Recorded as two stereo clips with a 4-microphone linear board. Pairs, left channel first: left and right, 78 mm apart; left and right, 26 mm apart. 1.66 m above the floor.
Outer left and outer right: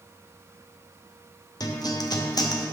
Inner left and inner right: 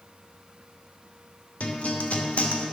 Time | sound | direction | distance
1.6 | a guitar | 55° left (ahead or behind) | 0.9 m